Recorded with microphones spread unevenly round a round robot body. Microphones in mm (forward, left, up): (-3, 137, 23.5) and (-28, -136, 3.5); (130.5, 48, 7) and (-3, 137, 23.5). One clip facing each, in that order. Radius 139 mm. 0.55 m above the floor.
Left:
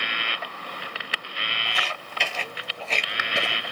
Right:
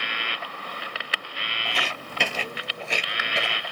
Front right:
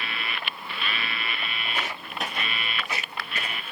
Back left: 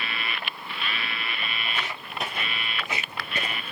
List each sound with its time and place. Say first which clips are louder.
1.6 s footsteps: right 5 dB, front right 1 dB; 120° right, 1.0 m; by 3.7 s 115° left, 0.6 m